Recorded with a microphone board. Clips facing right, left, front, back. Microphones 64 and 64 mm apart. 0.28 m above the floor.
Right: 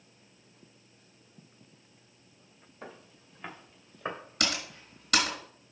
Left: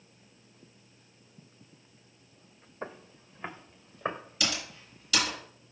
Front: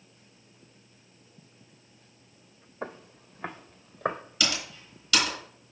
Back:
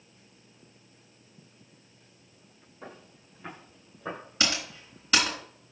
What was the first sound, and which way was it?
Footsteps, 30° left.